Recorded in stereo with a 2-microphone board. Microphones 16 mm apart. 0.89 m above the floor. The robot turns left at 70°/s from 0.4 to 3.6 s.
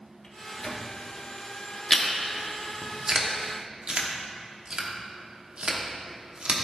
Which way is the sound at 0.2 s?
45° left (ahead or behind).